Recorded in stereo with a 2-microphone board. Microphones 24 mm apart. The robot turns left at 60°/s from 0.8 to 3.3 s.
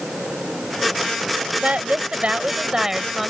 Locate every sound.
1.6 s a woman speaking: 80° right; by 3.3 s straight behind